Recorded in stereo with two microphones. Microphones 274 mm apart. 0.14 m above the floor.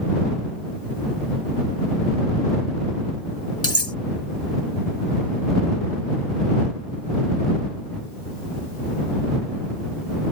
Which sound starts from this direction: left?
Cutlery clinking, at 3.6 s.